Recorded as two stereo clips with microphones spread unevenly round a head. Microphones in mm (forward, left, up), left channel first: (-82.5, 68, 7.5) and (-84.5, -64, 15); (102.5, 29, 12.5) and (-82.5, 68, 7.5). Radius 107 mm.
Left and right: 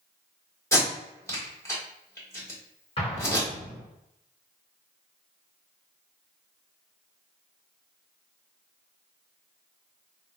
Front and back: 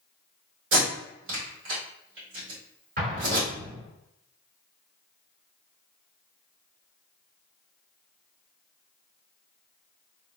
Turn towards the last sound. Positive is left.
turn(degrees=130)